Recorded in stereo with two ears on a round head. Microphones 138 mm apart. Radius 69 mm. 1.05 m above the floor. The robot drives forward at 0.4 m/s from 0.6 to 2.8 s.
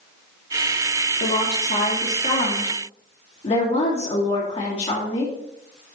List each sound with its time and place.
1.2 s a woman speaking: 55° left (ahead or behind), 1.4 m; by 5.3 s 45° left (ahead or behind), 1.7 m